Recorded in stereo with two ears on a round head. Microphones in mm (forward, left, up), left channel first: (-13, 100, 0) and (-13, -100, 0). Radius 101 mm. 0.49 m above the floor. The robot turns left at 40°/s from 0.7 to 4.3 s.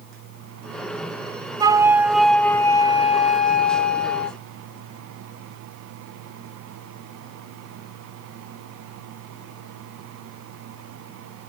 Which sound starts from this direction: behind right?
A flute, at 1.6 s.